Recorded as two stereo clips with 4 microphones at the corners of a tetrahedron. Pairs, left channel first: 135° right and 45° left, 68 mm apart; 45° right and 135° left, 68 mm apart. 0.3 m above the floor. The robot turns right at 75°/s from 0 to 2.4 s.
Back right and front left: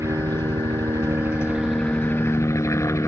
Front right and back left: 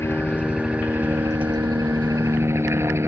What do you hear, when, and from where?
0.0 s a helicopter: 5° left; by 3.1 s 175° right